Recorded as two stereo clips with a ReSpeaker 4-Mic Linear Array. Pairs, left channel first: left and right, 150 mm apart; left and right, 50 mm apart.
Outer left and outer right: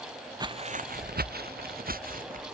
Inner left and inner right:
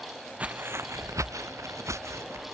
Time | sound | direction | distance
0.4 | footsteps | 25° right (ahead or behind) | ?